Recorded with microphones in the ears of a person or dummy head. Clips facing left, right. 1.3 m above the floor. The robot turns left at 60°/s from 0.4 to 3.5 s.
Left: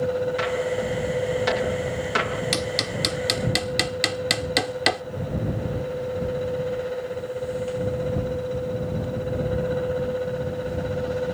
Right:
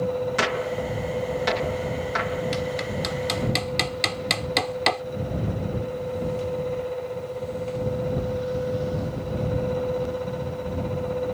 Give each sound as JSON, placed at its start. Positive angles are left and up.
{"t": 0.4, "sound": "a gunshot", "side_deg": -60}
{"t": 2.5, "sound": "hammering", "side_deg": 65}